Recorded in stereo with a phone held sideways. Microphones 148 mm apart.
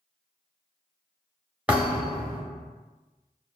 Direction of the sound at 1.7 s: 10° right (ahead or behind).